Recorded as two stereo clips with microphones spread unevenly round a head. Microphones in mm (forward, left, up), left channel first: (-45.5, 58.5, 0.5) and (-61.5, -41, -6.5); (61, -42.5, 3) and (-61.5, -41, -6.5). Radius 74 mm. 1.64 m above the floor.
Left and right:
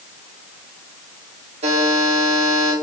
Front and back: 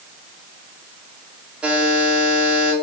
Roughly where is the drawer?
I don't hear a drawer.